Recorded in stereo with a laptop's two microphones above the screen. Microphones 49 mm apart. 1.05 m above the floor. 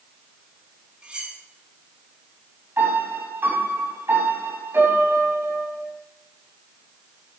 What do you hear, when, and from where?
1.0 s cutlery clinking: 20° right (ahead or behind), 6.5 m
2.8 s a piano: 50° right (ahead or behind), 7.5 m